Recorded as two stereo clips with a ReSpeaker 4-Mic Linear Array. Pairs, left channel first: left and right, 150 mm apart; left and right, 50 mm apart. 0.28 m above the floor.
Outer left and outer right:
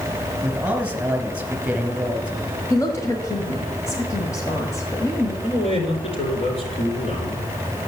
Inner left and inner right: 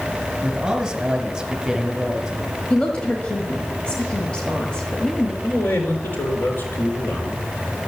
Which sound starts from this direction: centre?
A man speaking, at 0.4 s.